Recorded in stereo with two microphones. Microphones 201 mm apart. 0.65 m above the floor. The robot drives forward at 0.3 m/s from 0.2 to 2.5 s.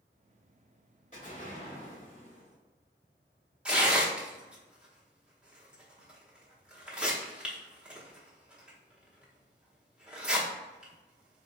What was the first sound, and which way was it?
An explosion, 40° left (ahead or behind).